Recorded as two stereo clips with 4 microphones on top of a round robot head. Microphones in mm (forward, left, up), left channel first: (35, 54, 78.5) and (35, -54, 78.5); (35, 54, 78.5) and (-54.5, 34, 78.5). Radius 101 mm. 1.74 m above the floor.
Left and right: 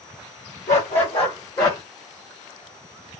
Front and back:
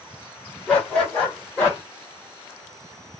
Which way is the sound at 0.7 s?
90° left.